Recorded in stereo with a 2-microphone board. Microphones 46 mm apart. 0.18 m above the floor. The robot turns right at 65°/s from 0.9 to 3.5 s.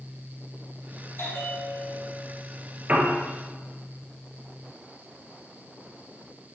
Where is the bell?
110° left, 3.5 m; by 2.3 s 175° right, 3.5 m.